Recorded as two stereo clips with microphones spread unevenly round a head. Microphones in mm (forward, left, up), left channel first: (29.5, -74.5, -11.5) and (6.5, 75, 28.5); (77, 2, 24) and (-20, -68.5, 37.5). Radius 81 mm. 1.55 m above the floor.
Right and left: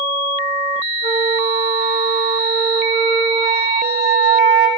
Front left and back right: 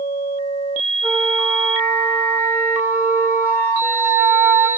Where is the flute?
140° left, 4 m.